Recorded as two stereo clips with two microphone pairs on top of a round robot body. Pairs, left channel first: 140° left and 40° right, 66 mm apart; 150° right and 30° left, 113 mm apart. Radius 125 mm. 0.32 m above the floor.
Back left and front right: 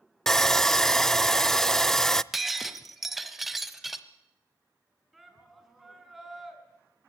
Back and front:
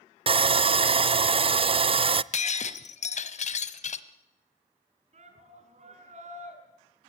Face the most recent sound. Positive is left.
turn(degrees=50)